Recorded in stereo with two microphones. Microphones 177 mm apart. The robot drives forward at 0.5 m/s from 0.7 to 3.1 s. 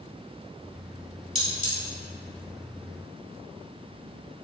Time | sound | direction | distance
1.4 | cutlery clinking | 40° left (ahead or behind) | 1.5 m